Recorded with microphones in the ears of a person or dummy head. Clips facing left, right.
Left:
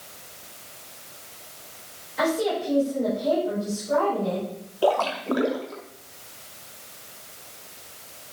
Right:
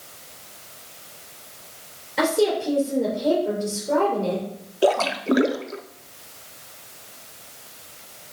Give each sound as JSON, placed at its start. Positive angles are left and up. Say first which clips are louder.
{"t": 2.2, "sound": "a woman speaking", "louder": "right 4 dB", "side_deg": -75, "distance_m": 4.5}
{"t": 4.8, "sound": "a splash", "louder": "right 2 dB", "side_deg": -25, "distance_m": 0.5}